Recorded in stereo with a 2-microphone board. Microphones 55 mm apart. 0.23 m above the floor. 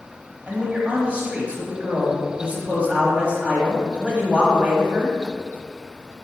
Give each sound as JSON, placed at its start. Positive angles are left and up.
{"t": 0.5, "sound": "a man speaking", "side_deg": -25, "distance_m": 1.3}